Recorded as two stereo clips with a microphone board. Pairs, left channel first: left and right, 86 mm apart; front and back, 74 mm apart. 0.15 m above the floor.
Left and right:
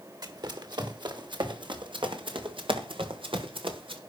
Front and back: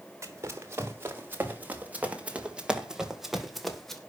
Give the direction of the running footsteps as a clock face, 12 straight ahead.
4 o'clock.